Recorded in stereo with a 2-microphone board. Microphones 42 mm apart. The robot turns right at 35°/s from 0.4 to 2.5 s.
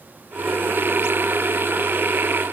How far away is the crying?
No crying in this recording.